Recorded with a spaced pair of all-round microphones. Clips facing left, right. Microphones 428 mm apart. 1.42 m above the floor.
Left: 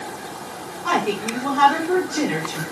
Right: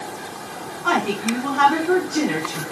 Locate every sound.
0.8 s a woman speaking: 80° right, 5.5 m